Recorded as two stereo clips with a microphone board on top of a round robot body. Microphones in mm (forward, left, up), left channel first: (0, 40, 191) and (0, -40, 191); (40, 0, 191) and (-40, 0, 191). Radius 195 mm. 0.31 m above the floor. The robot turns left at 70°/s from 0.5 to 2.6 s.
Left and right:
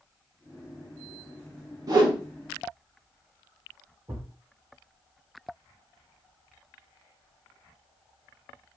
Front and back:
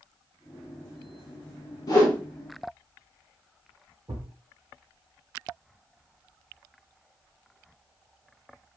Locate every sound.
1.9 s a whoosh: 45° right, 0.6 m; by 2.2 s 65° right, 0.6 m
4.1 s a thud: 140° right, 1.1 m